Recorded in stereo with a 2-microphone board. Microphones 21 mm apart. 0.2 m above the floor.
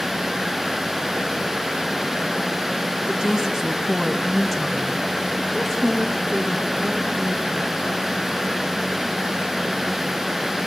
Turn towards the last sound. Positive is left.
turn(degrees=40)  # may be behind; listen again after turning